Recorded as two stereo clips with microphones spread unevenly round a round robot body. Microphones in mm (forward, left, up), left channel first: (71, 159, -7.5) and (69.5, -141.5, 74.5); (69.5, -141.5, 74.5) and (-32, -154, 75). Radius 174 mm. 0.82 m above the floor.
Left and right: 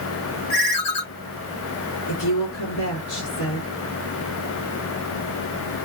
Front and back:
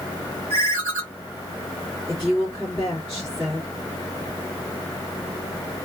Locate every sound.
0.5 s a ringtone: 80° left, 1.5 m
2.1 s a woman speaking: 85° left, 1.6 m